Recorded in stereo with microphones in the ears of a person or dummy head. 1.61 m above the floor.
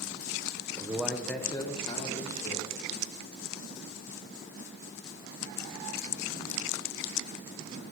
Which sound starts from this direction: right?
A man speaking, at 0.8 s.